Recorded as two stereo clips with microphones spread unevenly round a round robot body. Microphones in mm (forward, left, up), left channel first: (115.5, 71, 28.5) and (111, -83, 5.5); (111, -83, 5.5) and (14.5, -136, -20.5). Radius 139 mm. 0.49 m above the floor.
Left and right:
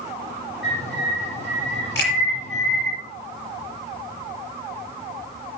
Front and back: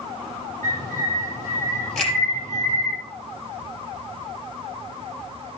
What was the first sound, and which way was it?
A bird, 175° left.